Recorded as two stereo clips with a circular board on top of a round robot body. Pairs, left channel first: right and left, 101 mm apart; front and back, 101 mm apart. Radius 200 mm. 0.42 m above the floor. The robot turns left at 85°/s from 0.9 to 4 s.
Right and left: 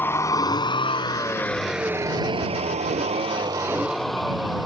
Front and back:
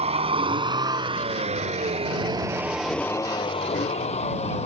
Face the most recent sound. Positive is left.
turn(degrees=0)